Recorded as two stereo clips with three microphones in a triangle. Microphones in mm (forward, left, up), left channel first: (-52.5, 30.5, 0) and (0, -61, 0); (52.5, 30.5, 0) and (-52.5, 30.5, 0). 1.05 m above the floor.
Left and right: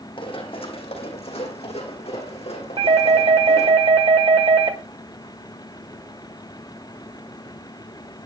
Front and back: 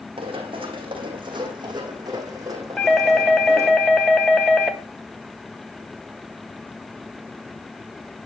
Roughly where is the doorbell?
Right.